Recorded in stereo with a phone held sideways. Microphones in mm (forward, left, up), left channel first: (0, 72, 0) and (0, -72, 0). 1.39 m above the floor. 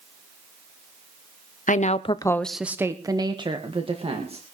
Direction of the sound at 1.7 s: 65° left (ahead or behind).